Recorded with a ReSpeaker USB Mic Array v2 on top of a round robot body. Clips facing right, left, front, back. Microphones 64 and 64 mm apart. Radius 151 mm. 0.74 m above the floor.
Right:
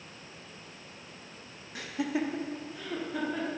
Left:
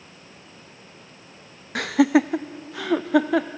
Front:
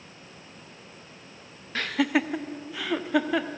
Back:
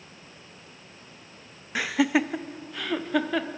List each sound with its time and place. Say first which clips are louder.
1.8 s laughter: left 14 dB, back 1 dB; 100° left, 0.7 m; by 3.5 s 85° left, 1.7 m